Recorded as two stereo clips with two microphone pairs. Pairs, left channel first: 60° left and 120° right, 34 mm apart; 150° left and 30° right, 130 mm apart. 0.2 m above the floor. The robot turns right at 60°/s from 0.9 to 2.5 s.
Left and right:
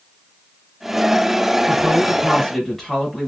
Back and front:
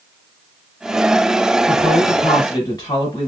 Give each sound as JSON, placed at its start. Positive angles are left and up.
{"t": 1.7, "sound": "a woman speaking", "azimuth_deg": 80, "distance_m": 1.3}